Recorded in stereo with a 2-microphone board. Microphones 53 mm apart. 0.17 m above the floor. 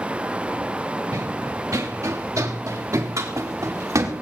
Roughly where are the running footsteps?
Right.